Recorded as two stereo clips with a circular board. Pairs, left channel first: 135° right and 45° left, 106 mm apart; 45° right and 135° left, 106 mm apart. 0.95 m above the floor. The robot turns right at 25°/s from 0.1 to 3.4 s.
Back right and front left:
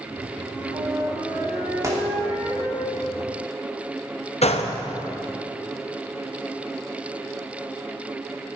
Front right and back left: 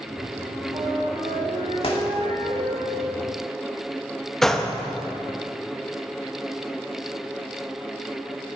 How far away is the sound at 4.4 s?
About 0.8 m.